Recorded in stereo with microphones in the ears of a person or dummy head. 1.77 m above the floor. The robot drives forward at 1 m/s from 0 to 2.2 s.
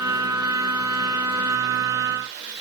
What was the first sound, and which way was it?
Only background noise.